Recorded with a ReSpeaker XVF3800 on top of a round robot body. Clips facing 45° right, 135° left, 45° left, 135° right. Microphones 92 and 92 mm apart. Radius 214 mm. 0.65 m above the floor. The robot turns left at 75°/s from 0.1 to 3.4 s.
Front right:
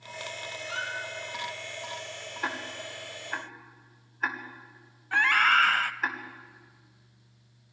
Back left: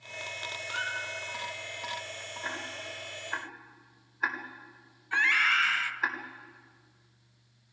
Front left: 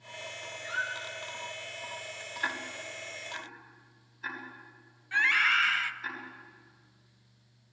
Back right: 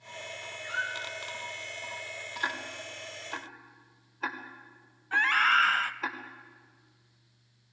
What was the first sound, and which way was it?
A squeak, 35° right.